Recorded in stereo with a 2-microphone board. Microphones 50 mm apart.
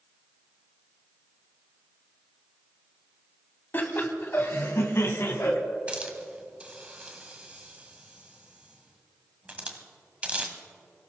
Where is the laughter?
40° left (ahead or behind), 1.9 m; by 5.6 s 65° left (ahead or behind), 2 m.